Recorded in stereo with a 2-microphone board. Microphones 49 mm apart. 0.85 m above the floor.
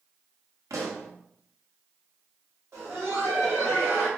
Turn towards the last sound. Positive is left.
turn(degrees=-65)  # may be behind; listen again after turning